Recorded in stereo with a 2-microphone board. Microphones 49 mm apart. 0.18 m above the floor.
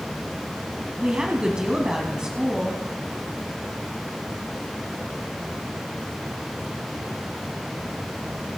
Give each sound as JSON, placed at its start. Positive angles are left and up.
{"t": 1.0, "sound": "a woman speaking", "side_deg": -20, "distance_m": 1.6}